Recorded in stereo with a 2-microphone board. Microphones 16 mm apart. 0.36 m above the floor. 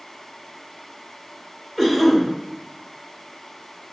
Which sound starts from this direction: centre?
A cough, at 1.8 s.